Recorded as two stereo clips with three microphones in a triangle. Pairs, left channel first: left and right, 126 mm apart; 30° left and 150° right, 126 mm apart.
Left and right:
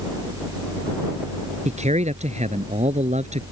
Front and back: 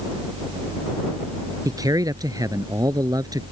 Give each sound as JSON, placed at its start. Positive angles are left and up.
{"t": 1.6, "sound": "a man speaking", "azimuth_deg": -90}